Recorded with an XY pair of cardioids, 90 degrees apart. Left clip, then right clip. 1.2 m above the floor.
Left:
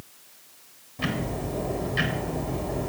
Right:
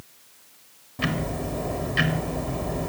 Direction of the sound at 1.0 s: 50° right.